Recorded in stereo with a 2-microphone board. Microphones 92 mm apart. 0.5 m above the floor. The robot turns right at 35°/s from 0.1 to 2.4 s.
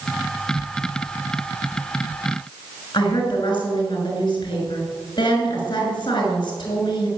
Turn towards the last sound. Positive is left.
turn(degrees=55)  # may be behind; listen again after turning